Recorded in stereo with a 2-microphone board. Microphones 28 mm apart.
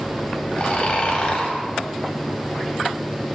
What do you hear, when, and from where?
0.6 s snoring: 35° left (ahead or behind), 0.8 m